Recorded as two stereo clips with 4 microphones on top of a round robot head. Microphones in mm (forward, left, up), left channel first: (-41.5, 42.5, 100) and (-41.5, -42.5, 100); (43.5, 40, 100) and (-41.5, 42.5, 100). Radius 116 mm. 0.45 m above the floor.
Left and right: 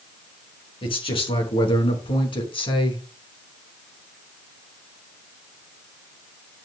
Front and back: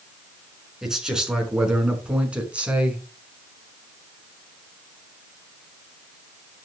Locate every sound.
0.8 s a man speaking: 95° left, 5.5 m; by 3.0 s 105° left, 4.5 m